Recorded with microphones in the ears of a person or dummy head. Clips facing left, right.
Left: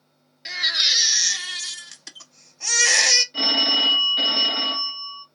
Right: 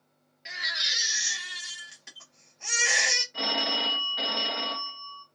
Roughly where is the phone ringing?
Left.